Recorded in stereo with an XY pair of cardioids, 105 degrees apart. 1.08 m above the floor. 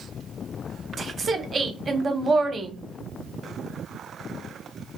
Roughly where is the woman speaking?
Ahead right.